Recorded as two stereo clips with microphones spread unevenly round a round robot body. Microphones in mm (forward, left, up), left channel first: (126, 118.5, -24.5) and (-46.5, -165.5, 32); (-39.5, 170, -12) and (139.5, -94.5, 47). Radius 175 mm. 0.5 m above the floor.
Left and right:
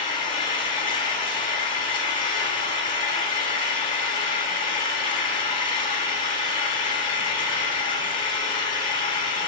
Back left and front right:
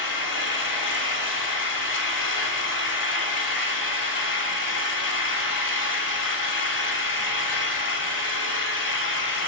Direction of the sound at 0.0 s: 130° left.